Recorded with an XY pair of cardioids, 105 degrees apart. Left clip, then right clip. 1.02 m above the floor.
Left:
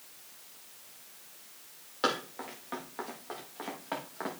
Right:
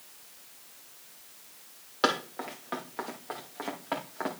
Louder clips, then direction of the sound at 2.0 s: Right 3 dB; 30° right.